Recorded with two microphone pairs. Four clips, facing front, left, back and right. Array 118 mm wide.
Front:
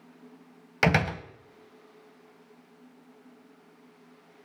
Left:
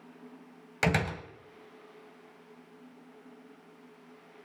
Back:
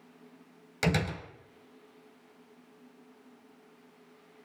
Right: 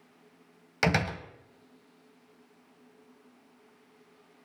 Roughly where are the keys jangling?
No keys jangling in this recording.